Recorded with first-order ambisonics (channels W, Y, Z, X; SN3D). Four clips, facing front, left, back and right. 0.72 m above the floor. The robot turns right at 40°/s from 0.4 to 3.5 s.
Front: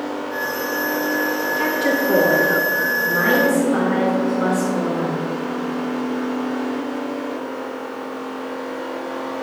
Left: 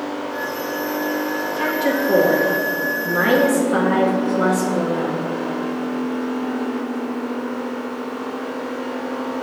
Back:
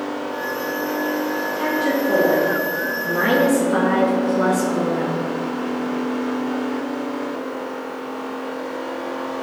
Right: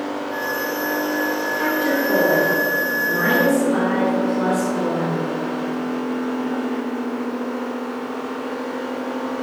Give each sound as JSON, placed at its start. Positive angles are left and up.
{"t": 1.6, "sound": "a woman speaking", "azimuth_deg": 40, "distance_m": 0.7}